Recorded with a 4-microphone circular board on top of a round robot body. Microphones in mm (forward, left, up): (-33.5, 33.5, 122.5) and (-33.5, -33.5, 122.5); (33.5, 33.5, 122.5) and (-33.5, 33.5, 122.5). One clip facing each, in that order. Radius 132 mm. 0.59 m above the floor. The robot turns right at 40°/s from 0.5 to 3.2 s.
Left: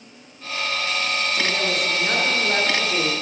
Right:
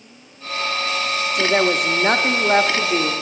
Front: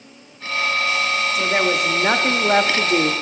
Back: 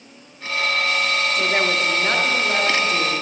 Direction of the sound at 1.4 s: 85° right.